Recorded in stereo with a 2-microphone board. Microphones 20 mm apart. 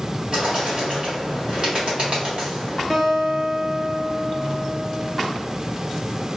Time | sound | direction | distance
0.3 | a bird | 55° right (ahead or behind) | 1.9 m
2.9 | a guitar | 30° right (ahead or behind) | 1.0 m